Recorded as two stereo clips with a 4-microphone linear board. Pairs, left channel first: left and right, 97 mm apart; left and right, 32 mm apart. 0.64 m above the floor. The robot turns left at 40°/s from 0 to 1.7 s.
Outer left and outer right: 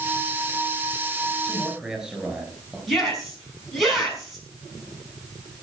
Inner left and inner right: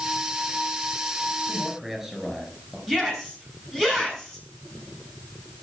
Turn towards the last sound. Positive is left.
turn(degrees=0)  # may be behind; listen again after turning